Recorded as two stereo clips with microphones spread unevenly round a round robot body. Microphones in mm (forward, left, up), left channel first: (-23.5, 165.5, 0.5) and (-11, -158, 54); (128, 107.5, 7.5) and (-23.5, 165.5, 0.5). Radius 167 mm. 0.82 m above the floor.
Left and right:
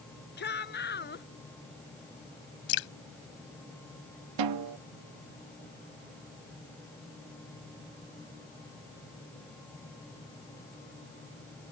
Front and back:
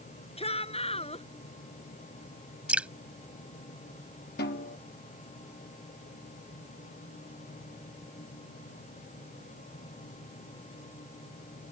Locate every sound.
0.4 s a shout: 30° left
2.7 s dripping: 75° left
4.4 s a snare drum: 60° right